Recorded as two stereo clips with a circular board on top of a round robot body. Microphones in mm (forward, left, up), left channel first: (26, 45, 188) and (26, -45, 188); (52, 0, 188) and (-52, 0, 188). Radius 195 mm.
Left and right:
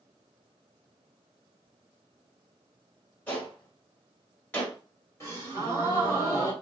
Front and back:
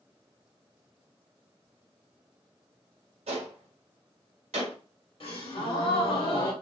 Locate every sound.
3.3 s a gunshot: 165° left, 1.6 m
5.2 s a gasp: 30° left, 2.5 m